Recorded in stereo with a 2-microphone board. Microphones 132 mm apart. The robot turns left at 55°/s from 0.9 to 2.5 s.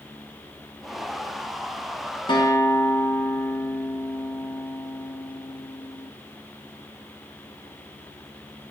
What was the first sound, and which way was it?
A guitar, 35° left (ahead or behind).